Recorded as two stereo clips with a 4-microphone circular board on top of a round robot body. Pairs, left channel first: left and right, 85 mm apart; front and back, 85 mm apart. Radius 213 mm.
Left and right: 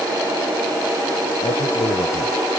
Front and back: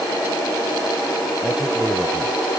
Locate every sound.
1.4 s a man speaking: 100° left